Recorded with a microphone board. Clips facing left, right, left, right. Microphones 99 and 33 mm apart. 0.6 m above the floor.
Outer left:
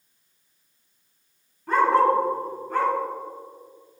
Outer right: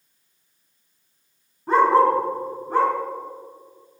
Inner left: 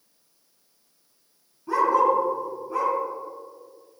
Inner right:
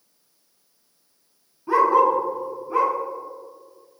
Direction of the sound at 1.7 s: 20° right (ahead or behind).